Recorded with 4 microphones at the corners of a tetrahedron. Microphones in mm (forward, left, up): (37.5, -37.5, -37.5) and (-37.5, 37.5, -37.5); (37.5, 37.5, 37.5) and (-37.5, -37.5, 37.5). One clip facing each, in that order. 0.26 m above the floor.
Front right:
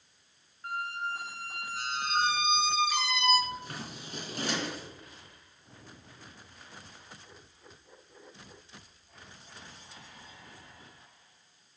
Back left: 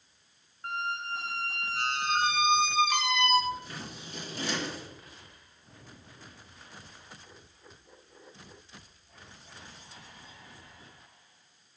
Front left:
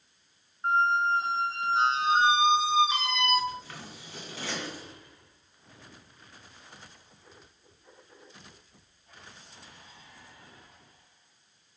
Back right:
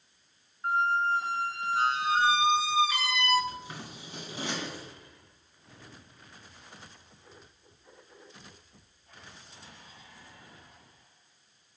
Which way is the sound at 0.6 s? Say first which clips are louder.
Back left 1 dB, front left 2 dB; 110° left.